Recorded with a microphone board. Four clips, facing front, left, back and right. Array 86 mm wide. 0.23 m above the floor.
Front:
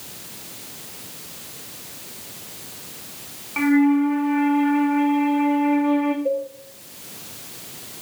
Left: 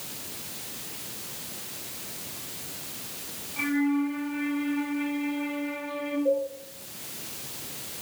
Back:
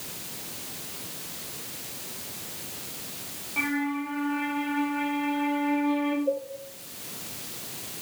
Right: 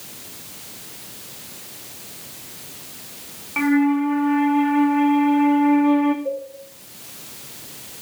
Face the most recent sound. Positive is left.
turn(degrees=-5)